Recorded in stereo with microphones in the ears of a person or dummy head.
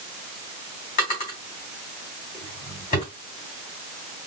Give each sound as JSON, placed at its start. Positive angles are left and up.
{"t": 1.0, "sound": "a drawer", "side_deg": 40, "distance_m": 2.5}